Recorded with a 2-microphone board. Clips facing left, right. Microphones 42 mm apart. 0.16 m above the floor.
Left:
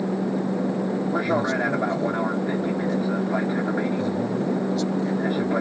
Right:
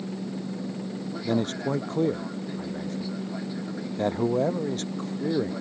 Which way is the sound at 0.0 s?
50° left (ahead or behind).